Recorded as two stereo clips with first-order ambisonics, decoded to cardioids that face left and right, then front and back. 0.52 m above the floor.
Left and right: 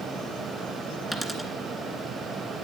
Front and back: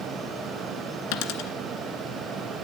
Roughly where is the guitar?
I don't hear a guitar.